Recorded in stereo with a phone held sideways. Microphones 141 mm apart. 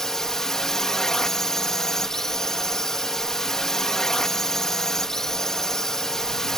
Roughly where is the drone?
Centre.